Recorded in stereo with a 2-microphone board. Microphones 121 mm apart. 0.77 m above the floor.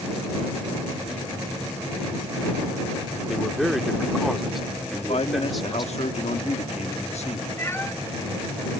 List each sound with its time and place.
3.3 s a man speaking: centre (ahead or behind)
4.9 s a man speaking: 65° left (ahead or behind)
7.6 s a cat meowing: 20° left (ahead or behind)